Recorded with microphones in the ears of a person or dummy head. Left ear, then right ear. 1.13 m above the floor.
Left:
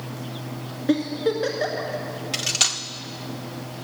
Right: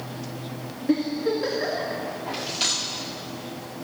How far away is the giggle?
About 2.0 m.